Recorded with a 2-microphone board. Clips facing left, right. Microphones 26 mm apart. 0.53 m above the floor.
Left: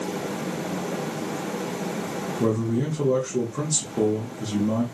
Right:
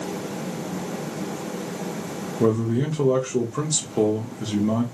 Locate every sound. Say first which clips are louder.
2.4 s a man speaking: right 3 dB; 35° right (ahead or behind), 0.8 m